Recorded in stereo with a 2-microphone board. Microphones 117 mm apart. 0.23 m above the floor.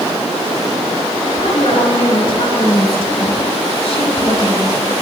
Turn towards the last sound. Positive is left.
turn(degrees=55)  # may be behind; listen again after turning